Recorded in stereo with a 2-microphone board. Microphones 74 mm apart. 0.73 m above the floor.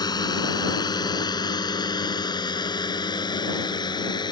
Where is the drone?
65° left (ahead or behind); by 4.3 s 75° left (ahead or behind).